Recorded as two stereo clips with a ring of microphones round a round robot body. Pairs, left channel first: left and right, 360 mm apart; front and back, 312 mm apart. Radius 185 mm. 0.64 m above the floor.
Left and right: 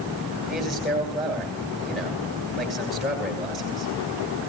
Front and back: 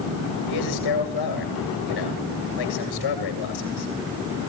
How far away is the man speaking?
About 8.5 m.